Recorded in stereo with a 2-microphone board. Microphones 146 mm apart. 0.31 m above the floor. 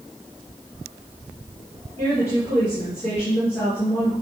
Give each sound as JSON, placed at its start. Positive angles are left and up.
{"t": 2.0, "sound": "a woman speaking", "side_deg": 15, "distance_m": 4.5}